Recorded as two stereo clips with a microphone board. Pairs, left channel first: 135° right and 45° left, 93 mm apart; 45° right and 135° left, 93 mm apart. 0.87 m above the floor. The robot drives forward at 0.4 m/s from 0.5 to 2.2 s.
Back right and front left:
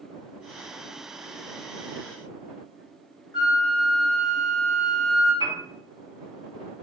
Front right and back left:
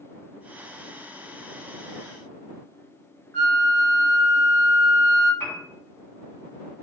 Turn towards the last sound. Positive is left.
turn(degrees=-110)